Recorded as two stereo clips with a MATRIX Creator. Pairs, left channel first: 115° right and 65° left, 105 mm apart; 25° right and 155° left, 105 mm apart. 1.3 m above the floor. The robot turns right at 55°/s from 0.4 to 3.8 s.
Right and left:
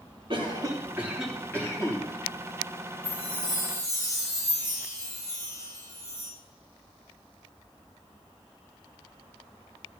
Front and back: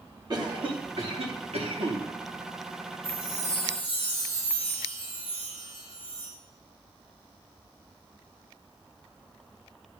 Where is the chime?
100° right, 5.5 m; by 6.3 s 55° right, 5.5 m.